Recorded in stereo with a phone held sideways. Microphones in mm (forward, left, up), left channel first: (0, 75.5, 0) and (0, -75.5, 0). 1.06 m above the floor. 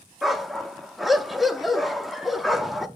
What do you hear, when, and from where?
0.2 s a dog barking: centre (ahead or behind), 0.6 m